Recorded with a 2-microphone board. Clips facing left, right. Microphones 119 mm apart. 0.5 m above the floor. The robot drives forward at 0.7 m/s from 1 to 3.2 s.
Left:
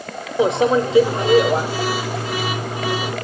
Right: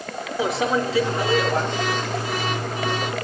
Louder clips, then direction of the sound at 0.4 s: Left 6 dB; 25° left (ahead or behind).